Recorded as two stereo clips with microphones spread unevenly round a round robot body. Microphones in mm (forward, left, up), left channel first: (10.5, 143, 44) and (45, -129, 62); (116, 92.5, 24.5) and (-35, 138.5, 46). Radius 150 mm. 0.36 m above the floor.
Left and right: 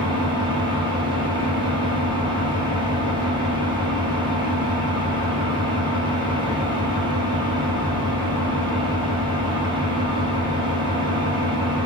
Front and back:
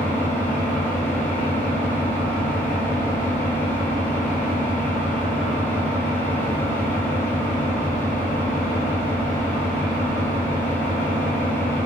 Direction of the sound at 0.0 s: 25° right.